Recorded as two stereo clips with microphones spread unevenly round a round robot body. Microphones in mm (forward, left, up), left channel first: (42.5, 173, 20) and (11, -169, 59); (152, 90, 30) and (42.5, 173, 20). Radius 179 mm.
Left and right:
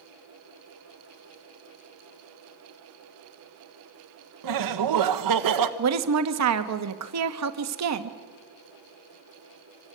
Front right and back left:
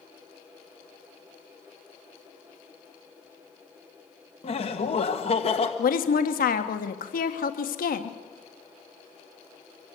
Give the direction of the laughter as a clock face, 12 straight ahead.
3 o'clock.